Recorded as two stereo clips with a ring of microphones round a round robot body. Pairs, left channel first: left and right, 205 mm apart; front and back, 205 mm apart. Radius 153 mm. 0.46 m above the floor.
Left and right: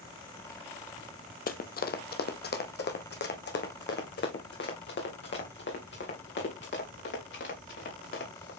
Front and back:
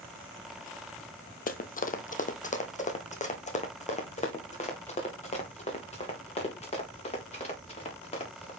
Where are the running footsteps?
45° left, 1.0 m; by 8.5 s 60° left, 5 m.